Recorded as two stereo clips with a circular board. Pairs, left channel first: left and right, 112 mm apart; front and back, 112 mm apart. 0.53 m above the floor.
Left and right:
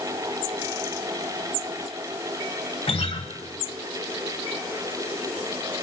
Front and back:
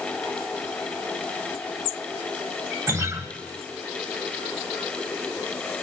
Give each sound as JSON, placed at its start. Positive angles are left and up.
{"t": 2.9, "sound": "a guitar", "azimuth_deg": 120, "distance_m": 1.3}